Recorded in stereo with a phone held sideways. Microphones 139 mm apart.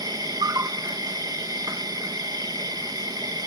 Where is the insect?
25° right (ahead or behind).